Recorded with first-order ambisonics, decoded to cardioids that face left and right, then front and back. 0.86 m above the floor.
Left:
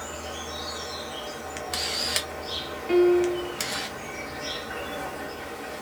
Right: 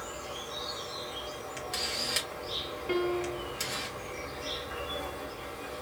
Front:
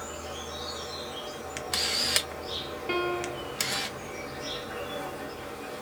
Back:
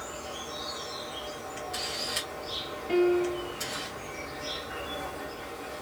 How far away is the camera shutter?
About 0.6 m.